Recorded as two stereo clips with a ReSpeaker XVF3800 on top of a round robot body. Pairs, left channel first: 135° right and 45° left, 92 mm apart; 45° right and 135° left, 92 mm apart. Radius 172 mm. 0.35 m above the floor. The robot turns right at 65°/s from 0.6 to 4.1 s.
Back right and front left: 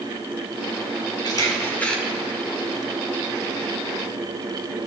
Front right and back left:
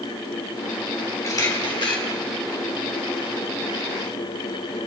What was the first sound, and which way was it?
A camera shutter, 100° right.